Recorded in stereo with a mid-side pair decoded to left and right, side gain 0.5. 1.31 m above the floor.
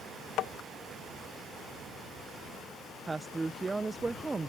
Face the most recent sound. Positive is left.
turn(degrees=-25)